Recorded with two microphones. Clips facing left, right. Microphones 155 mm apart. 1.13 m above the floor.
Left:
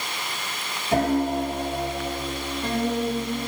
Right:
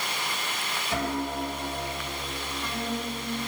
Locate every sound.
0.9 s a piano: 45° left (ahead or behind), 3.5 m